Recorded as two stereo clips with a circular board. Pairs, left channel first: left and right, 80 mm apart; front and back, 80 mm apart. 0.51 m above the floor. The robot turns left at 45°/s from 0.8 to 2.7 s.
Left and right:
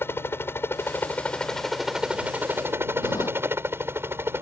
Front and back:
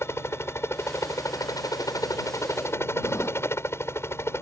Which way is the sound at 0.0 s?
40° left.